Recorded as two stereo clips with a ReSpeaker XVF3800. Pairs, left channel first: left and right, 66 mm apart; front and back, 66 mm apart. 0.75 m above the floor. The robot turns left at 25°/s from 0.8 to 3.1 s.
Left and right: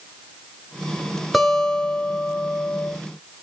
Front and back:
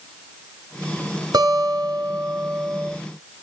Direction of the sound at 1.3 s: Straight behind.